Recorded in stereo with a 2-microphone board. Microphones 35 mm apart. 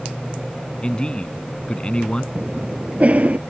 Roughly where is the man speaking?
Left.